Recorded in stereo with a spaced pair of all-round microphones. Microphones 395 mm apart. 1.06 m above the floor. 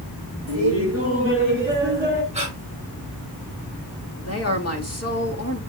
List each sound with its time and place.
0.5 s laughter: 35° right (ahead or behind), 4.5 m; by 2.2 s 25° right (ahead or behind), 5 m
2.3 s breathing: 15° right (ahead or behind), 5 m
4.2 s a woman speaking: 40° left (ahead or behind), 1.9 m